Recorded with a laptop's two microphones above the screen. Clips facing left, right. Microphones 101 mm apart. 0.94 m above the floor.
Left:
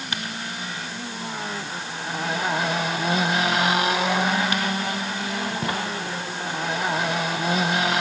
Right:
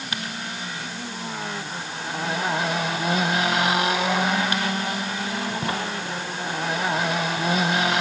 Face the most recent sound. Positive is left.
No sound to turn to.